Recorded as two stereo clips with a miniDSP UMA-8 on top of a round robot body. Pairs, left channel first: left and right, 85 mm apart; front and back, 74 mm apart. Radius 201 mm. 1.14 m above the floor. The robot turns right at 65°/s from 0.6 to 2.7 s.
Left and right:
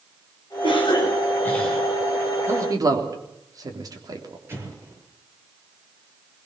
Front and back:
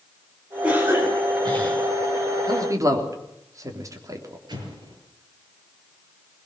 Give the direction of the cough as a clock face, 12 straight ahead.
8 o'clock.